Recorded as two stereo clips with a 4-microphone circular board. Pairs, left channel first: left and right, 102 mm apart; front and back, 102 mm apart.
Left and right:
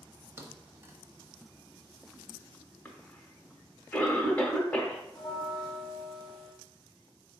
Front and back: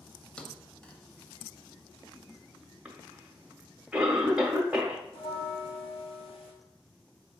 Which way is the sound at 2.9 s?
125° left.